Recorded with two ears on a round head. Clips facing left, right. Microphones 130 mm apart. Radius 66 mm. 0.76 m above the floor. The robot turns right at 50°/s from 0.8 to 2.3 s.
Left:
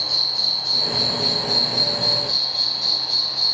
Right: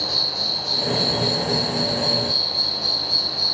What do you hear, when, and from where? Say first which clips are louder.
0.0 s an insect: right 5 dB; straight ahead, 0.9 m; by 3.5 s 75° left, 0.9 m